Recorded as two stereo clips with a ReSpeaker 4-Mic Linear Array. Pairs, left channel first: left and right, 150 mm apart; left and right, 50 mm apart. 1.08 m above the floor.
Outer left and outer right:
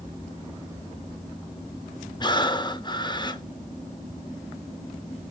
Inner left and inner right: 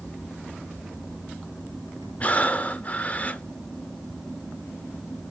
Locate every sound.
2.2 s breathing: 30° left (ahead or behind), 0.8 m